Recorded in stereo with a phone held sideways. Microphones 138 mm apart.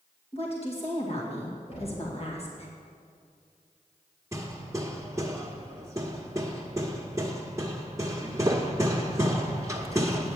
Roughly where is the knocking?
Left.